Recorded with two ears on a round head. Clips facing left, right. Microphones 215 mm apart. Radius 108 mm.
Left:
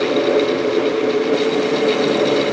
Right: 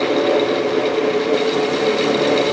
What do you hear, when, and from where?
Only background noise.